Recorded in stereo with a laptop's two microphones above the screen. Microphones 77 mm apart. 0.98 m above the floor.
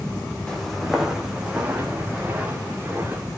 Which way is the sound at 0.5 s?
5° left (ahead or behind).